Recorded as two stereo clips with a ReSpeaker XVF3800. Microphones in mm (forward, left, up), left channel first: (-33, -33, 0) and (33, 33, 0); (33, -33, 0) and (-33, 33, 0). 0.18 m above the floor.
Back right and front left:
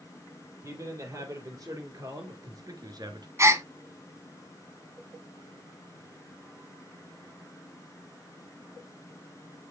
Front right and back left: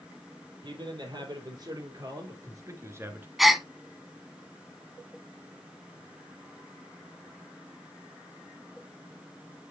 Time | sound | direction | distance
0.6 | a man speaking | 100° left | 5.5 m
3.4 | a gasp | 50° left | 1.2 m